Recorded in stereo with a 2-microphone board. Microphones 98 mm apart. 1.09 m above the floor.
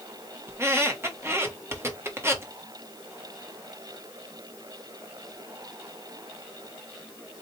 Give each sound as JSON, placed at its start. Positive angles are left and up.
{"t": 0.5, "sound": "a squeak", "side_deg": -25, "distance_m": 0.9}